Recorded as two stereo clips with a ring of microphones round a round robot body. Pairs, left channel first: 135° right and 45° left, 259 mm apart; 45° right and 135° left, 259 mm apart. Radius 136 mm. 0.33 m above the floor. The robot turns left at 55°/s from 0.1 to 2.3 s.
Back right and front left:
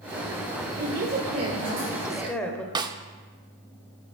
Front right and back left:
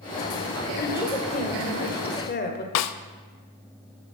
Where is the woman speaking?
30° left, 1.4 m; by 2.6 s 55° right, 1.4 m.